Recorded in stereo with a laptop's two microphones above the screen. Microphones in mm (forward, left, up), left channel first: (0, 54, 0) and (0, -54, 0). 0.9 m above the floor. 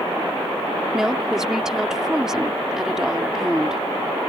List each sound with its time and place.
0.9 s a woman speaking: 5° right (ahead or behind)